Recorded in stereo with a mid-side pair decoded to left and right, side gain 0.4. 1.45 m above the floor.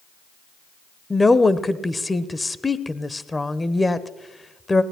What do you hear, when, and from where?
1.1 s a woman speaking: 20° left, 1.0 m